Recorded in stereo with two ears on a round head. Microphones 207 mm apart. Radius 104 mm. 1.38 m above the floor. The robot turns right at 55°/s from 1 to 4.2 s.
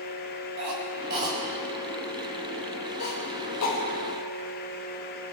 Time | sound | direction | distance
0.6 | a cough | 50° right (ahead or behind) | 5 m